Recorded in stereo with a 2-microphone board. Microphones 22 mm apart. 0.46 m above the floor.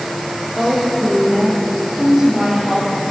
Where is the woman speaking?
20° right (ahead or behind), 9.5 m; by 3.1 s 25° right (ahead or behind), 8.5 m.